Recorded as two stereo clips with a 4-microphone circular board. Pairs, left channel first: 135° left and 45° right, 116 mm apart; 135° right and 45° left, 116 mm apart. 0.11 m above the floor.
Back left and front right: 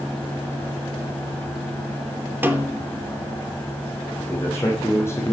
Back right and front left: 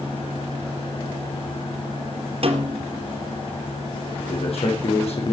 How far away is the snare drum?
About 3 m.